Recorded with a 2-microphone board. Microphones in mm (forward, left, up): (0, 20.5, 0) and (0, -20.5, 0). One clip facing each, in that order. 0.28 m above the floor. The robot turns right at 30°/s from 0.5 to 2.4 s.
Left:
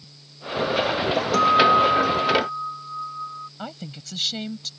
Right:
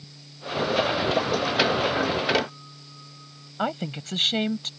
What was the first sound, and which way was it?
A guitar, 80° left.